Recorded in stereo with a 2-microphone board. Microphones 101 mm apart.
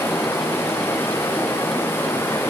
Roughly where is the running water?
Left.